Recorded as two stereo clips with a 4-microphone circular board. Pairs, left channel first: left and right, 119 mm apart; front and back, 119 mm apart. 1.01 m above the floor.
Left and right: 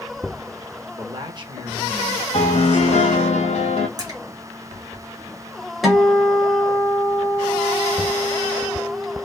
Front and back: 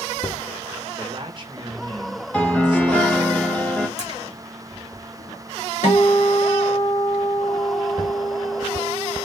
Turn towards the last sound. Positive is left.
turn(degrees=0)